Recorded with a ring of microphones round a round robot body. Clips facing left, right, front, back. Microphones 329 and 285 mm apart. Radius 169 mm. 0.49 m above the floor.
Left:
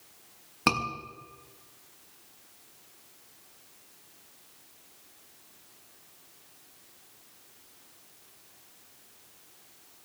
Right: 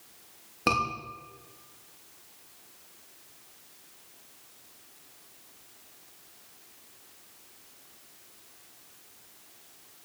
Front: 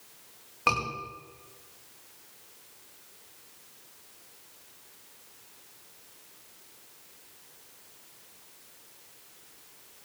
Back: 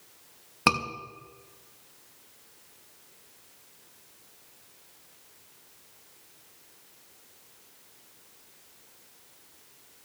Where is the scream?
155° left, 5.5 m.